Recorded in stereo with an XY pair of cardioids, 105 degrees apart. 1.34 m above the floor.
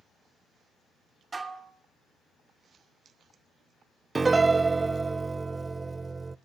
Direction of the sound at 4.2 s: 25° right.